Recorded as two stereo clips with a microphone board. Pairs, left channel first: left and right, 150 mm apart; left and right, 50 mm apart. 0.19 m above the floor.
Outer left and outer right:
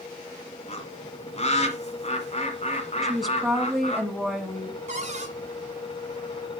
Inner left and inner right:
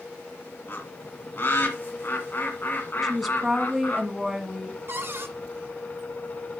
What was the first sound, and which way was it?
A bird, 45° left (ahead or behind).